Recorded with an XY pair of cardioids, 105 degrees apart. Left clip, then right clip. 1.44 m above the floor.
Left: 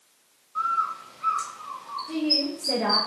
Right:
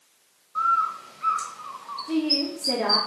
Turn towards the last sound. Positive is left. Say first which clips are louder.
# right 1 dB
turn(degrees=-65)